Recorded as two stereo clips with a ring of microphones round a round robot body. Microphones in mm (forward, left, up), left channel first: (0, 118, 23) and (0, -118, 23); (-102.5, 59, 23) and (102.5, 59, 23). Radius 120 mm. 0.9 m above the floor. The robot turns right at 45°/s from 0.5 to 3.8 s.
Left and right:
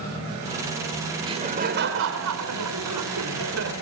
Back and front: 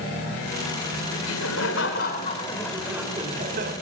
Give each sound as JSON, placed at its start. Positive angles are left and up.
{"t": 1.2, "sound": "laughter", "azimuth_deg": -165, "distance_m": 3.0}